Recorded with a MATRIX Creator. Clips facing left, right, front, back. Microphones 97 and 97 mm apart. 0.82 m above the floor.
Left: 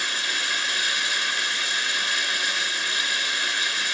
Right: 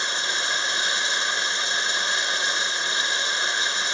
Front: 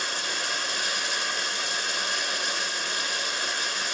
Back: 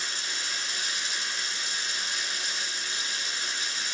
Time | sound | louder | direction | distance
0.0 | running water | right 2 dB, front 5 dB | 25° right | 2.5 m